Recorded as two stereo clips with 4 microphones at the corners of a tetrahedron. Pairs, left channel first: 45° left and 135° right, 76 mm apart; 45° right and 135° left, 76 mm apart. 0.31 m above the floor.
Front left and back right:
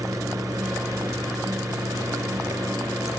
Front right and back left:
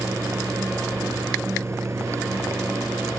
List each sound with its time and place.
0.0 s running water: 175° right